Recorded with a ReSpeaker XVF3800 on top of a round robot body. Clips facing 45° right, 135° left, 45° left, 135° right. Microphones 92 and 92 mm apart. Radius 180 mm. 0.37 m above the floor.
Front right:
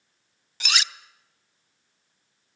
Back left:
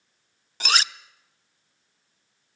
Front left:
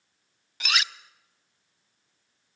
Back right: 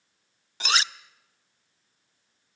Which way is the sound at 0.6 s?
175° left.